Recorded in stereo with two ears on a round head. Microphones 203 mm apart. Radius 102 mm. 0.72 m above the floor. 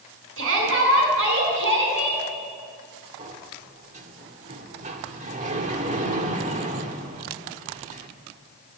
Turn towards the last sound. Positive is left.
turn(degrees=-30)  # may be behind; listen again after turning